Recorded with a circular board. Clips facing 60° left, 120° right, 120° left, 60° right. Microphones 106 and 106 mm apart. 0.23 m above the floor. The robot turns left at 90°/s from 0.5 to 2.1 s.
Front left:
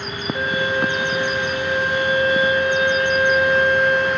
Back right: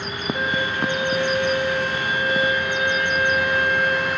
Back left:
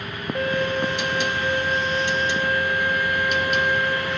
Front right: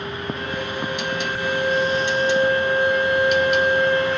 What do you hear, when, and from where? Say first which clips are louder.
0.3 s a violin: front left 4 dB, back left 4 dB; 140° left, 7.5 m; by 4.2 s 5° right, 7.5 m